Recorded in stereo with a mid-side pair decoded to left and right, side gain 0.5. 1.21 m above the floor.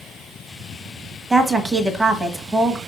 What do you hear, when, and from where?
1.3 s a woman speaking: 25° right, 1.3 m